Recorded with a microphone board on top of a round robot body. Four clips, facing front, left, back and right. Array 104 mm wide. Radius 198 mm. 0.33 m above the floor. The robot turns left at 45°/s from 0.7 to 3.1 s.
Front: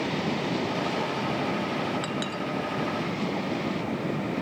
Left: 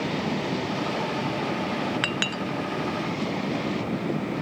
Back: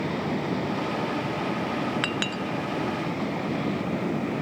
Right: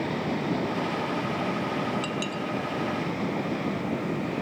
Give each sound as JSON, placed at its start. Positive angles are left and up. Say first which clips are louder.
{"t": 2.0, "sound": "a clink", "louder": "left 1 dB, back 2 dB", "azimuth_deg": 120, "distance_m": 1.6}